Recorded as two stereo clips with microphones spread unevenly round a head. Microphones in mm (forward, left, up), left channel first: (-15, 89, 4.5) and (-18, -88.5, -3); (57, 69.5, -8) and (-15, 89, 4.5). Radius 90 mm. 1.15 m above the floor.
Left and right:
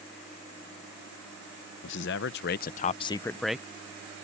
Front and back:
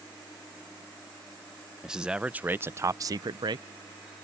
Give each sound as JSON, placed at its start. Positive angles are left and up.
{"t": 1.8, "sound": "a man speaking", "azimuth_deg": 75}